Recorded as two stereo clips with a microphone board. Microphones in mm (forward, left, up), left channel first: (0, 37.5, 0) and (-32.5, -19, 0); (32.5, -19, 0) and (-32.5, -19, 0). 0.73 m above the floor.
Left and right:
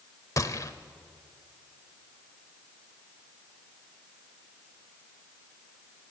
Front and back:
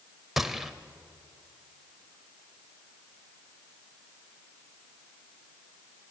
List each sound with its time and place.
0.4 s a gunshot: 95° left, 1.0 m